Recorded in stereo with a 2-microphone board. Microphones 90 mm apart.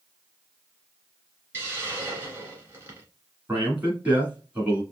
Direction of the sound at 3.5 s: 20° right (ahead or behind).